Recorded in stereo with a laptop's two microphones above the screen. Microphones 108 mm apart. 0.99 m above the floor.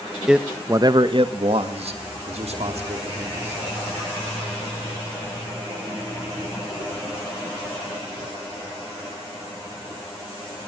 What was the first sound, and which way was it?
A man speaking, 5° right (ahead or behind).